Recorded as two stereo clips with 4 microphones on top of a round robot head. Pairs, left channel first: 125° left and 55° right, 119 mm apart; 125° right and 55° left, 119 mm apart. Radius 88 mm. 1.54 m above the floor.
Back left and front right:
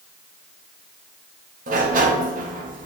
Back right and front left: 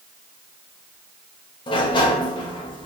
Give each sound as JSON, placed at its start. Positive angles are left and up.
{"t": 1.7, "sound": "a sliding door", "azimuth_deg": -75, "distance_m": 0.6}